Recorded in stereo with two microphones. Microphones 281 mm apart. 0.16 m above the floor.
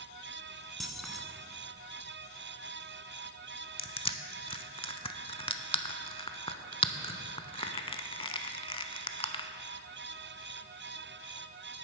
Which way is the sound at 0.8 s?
Centre (ahead or behind).